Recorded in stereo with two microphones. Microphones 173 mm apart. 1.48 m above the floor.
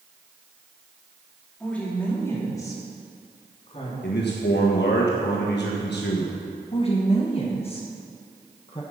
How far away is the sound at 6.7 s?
About 1.2 m.